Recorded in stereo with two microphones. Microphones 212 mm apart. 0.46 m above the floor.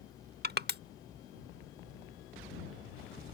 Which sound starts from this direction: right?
Crushing, at 0.4 s.